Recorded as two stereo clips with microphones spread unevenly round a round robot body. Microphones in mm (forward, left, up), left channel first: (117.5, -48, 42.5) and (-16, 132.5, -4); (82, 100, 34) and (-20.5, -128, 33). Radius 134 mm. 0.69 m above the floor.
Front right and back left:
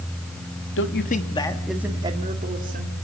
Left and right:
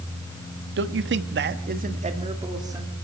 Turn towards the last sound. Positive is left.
turn(degrees=170)